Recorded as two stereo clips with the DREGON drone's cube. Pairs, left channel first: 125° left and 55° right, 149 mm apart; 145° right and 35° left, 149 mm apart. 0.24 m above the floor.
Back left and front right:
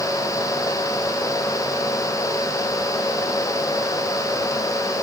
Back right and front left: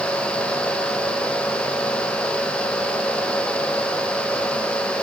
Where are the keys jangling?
No keys jangling in this recording.